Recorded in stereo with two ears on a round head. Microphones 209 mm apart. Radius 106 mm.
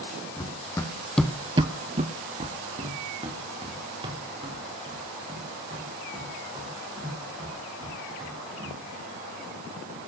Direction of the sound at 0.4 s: 15° left (ahead or behind).